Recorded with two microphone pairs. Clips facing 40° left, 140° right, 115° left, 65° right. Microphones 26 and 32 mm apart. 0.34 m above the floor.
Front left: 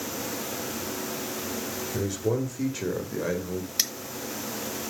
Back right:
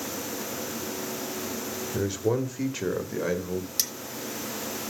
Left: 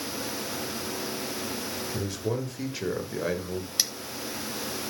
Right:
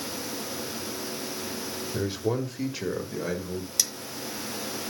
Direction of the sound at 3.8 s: 70° left.